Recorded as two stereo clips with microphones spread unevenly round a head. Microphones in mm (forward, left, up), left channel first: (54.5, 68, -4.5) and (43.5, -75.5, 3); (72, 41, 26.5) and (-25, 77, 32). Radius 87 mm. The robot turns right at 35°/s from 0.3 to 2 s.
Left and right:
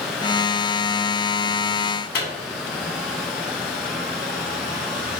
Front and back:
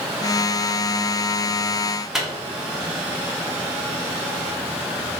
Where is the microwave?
75° left, 1.1 m.